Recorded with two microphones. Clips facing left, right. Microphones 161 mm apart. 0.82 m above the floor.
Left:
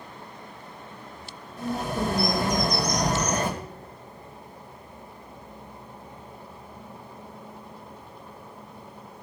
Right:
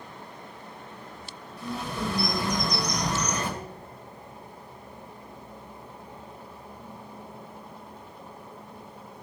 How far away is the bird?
About 2.5 m.